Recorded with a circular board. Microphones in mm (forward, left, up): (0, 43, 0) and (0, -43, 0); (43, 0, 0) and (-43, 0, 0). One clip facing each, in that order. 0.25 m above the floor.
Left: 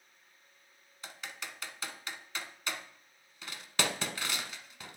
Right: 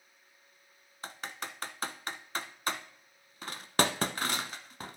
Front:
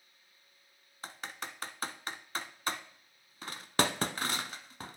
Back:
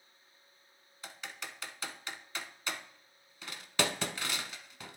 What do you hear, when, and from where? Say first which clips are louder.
1.0 s typing on a keyboard: right 4 dB, front 3 dB; 45° right, 0.8 m